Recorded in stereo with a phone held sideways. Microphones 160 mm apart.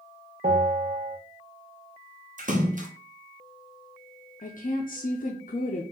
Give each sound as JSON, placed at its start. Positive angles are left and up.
{"t": 0.4, "sound": "a bell", "side_deg": -65, "distance_m": 1.0}
{"t": 2.4, "sound": "a splash", "side_deg": -55, "distance_m": 0.8}
{"t": 4.4, "sound": "a woman speaking", "side_deg": 60, "distance_m": 0.6}